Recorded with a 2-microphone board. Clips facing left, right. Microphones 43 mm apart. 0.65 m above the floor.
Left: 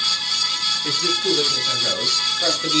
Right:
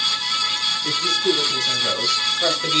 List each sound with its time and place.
0.8 s a man speaking: 15° left (ahead or behind), 5 m; by 2.8 s 15° right (ahead or behind), 3.5 m